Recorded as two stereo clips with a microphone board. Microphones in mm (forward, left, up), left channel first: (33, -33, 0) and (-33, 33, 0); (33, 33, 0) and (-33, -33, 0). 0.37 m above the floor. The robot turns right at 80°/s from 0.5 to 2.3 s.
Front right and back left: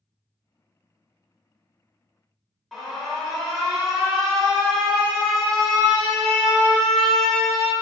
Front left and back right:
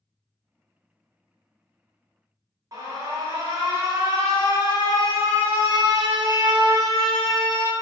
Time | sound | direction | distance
2.7 | an alarm | 130° right | 0.9 m